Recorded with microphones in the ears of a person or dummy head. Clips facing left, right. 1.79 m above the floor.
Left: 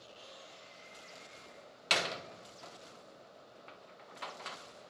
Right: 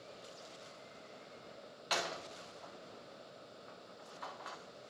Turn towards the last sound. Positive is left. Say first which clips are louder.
# left 2 dB
turn(degrees=30)  # may be behind; listen again after turning